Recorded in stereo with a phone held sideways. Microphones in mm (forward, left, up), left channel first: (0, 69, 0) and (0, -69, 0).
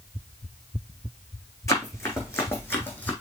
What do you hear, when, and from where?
1.7 s running footsteps: 20° left (ahead or behind), 3 m; by 3.1 s 15° left (ahead or behind), 2.5 m